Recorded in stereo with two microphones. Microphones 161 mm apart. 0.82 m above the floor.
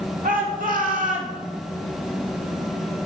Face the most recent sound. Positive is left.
turn(degrees=-50)  # may be behind; listen again after turning